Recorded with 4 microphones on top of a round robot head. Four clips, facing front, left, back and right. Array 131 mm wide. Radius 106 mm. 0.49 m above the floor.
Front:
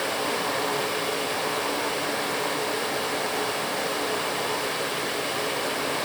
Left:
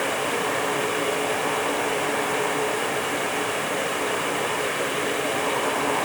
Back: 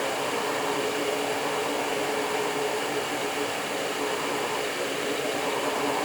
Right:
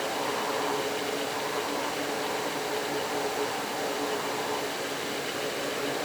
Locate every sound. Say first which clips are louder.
0.0 s running water: left 5 dB, front 1 dB; 65° left, 0.9 m